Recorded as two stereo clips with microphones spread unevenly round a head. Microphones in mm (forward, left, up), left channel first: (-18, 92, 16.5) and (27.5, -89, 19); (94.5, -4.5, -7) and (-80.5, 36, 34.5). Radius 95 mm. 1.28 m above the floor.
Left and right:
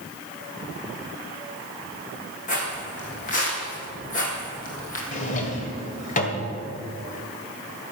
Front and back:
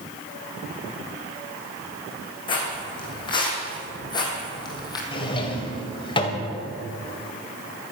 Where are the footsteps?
55° left, 4 m; by 5.0 s 60° left, 2.5 m.